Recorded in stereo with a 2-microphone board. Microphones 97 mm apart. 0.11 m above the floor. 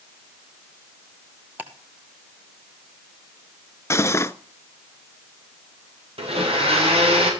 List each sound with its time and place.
1.6 s ticking: 15° right (ahead or behind), 1.8 m
3.9 s cutlery clinking: 30° left (ahead or behind), 0.7 m
6.2 s a blender: 80° right, 7.5 m